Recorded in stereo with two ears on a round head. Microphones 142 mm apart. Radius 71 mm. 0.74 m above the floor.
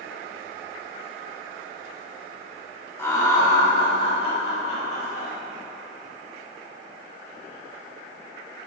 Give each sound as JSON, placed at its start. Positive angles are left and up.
{"t": 3.0, "sound": "laughter", "side_deg": 15, "distance_m": 2.0}